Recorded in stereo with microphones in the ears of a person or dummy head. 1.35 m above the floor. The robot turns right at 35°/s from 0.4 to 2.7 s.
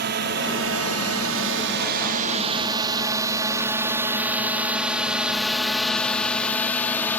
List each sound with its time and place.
0.0 s a drone: 55° right (ahead or behind); by 7.2 s 10° left (ahead or behind)